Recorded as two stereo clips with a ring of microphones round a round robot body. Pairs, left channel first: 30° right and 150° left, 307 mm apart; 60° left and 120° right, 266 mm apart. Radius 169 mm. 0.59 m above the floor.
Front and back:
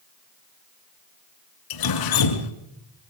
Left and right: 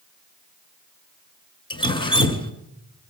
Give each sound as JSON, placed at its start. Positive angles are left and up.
{"t": 1.7, "sound": "dripping", "azimuth_deg": -15, "distance_m": 1.9}